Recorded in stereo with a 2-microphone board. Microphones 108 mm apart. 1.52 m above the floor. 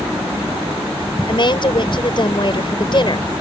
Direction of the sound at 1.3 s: 45° left (ahead or behind).